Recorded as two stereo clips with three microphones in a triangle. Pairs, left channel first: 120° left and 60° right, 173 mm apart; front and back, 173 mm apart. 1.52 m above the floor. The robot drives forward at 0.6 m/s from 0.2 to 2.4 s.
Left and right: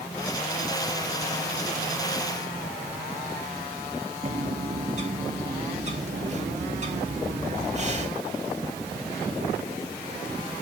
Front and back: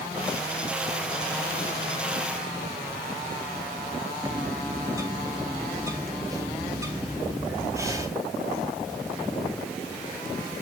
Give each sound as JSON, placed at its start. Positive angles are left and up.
{"t": 4.2, "sound": "a bird", "azimuth_deg": -110, "distance_m": 3.5}